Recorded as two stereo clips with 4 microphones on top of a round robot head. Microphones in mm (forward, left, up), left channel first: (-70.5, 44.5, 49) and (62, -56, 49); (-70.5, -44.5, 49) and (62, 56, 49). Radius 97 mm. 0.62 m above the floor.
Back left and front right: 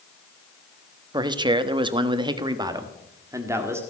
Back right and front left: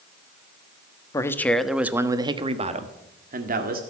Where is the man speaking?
85° right, 1.3 m; by 3.8 s 35° left, 2 m.